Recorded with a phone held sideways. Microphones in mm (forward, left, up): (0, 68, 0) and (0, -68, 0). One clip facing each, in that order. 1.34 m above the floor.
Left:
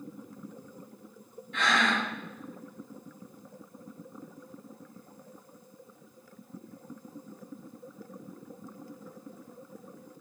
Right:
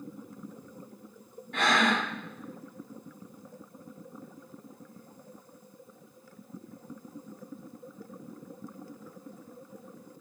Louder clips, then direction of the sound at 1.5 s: Right 2 dB; 60° right (ahead or behind).